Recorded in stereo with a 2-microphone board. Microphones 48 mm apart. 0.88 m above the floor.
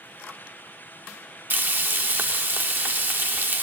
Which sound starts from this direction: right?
Frying, at 1.5 s.